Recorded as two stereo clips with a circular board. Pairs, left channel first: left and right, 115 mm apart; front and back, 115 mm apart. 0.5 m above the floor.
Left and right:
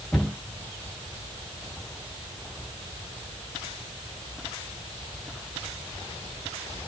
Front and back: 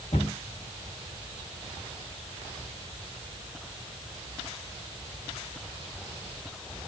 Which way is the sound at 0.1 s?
Straight ahead.